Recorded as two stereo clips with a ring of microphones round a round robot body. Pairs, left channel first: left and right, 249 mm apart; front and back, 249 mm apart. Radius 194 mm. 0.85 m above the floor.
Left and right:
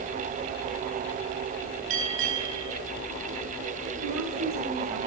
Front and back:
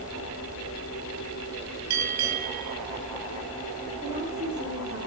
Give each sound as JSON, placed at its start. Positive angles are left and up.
{"t": 1.9, "sound": "a bell", "azimuth_deg": -145, "distance_m": 4.0}
{"t": 4.0, "sound": "a woman speaking", "azimuth_deg": -110, "distance_m": 5.5}